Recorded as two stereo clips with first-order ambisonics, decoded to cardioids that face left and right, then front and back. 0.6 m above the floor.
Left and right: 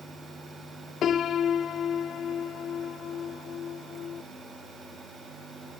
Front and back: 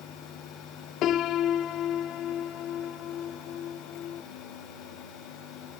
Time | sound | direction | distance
1.0 | a piano | 40° left | 0.6 m